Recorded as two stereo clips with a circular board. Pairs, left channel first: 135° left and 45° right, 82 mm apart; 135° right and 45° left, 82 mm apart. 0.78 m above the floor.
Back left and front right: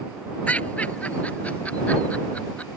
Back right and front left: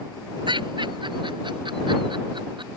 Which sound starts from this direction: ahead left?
Laughter, at 0.5 s.